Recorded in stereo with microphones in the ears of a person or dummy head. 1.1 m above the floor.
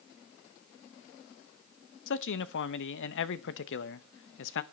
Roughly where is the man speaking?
Left.